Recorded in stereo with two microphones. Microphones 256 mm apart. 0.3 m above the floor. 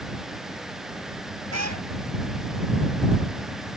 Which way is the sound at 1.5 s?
85° right.